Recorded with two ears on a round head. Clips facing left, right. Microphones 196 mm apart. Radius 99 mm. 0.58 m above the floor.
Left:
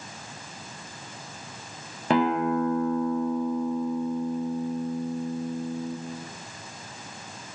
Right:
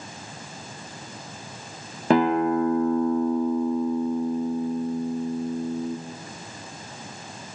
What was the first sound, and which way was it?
A guitar, 35° right (ahead or behind).